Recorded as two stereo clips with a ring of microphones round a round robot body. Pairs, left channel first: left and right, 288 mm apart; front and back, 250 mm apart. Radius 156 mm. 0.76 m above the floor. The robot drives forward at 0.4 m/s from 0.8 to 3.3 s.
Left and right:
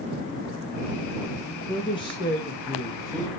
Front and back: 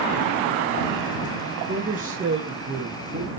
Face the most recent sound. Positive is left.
turn(degrees=165)